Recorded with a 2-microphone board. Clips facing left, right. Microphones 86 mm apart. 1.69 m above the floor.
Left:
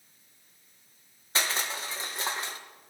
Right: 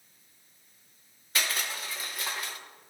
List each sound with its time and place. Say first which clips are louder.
1.4 s crushing: left 2 dB; 30° left (ahead or behind), 0.9 m